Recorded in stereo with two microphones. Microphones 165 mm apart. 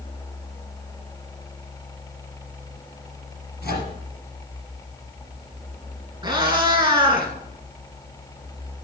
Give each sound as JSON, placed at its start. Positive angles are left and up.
{"t": 3.6, "sound": "a microwave", "side_deg": 75, "distance_m": 4.0}
{"t": 6.2, "sound": "a cat meowing", "side_deg": -25, "distance_m": 1.7}